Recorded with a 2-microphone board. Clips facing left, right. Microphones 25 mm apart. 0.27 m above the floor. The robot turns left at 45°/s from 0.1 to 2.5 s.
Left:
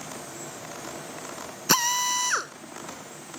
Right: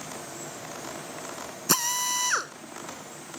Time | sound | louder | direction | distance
1.7 | a drill | left 3 dB | 35° left | ?